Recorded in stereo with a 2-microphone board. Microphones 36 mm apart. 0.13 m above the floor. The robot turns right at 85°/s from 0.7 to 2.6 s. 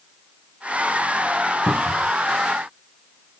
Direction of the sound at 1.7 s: 85° left.